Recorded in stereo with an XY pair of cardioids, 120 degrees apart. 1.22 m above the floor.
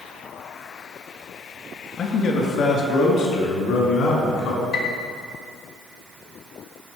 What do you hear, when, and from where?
2.0 s a man speaking: 60° left, 1.7 m; by 4.6 s 75° left, 3.5 m
4.7 s a piano: 70° left, 1.2 m